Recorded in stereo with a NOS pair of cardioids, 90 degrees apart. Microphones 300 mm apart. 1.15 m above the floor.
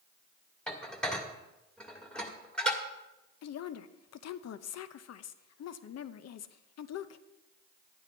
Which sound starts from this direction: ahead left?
A woman speaking, at 3.4 s.